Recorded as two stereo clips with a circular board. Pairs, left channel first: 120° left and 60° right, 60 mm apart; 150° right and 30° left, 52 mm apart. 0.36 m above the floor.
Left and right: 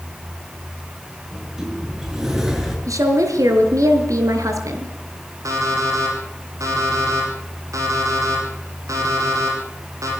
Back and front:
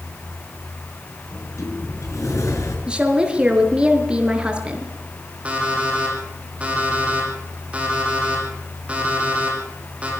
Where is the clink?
No clink in this recording.